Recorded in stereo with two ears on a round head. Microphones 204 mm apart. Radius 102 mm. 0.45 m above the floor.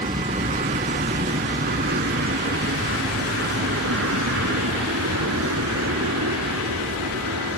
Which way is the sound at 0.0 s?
25° right (ahead or behind).